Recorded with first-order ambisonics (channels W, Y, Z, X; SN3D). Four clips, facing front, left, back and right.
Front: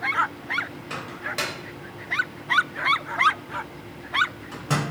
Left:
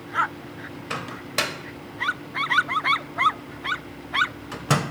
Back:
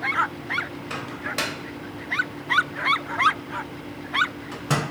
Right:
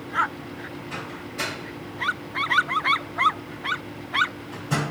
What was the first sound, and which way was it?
A microwave, 100° left.